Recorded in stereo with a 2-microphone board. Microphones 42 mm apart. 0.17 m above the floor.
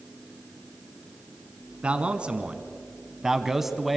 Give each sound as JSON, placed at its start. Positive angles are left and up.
{"t": 1.8, "sound": "a man speaking", "side_deg": -25, "distance_m": 1.7}